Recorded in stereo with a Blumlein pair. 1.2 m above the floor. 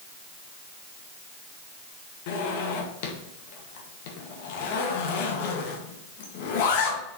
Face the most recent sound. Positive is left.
turn(degrees=50)